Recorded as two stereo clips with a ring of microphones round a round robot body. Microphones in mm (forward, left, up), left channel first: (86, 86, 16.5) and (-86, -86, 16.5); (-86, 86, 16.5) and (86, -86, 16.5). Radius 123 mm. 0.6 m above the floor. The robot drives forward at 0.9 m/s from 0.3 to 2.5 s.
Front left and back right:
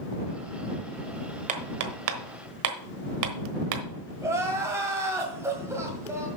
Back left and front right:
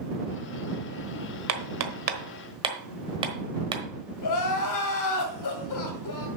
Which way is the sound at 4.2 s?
145° left.